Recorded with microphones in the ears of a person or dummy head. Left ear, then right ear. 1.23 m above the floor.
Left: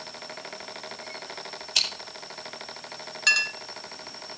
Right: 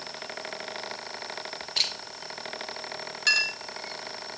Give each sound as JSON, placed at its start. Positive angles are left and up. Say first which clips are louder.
{"t": 1.8, "sound": "scissors", "louder": "left 2 dB", "side_deg": 60, "distance_m": 7.5}
{"t": 3.3, "sound": "a clink", "louder": "left 1 dB", "side_deg": 20, "distance_m": 1.0}